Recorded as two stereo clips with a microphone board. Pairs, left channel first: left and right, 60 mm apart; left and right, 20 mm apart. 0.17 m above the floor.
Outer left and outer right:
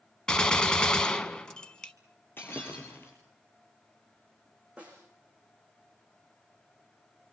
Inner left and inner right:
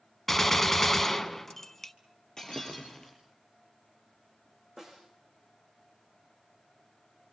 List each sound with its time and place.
0.3 s a gunshot: 15° left (ahead or behind), 1.3 m
2.4 s breaking glass: 35° left (ahead or behind), 8.5 m
4.8 s a snare drum: 20° right (ahead or behind), 8.5 m